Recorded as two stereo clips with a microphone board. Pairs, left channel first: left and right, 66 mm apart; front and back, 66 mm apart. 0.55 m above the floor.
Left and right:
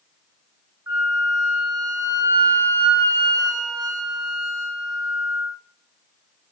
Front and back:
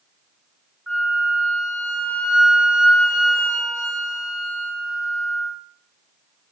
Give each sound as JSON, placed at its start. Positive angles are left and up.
{"t": 0.9, "sound": "a flute", "azimuth_deg": -105, "distance_m": 1.6}